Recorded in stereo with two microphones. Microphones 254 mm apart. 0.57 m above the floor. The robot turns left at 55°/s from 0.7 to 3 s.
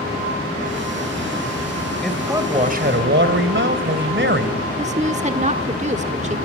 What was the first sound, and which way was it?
A man speaking, 5° left.